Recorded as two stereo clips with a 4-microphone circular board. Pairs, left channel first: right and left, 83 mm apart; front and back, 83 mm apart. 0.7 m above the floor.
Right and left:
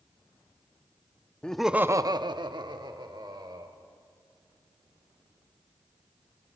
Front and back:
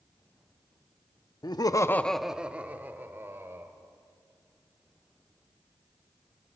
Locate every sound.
1.4 s laughter: 15° right, 0.8 m; by 3.7 s 120° left, 2.5 m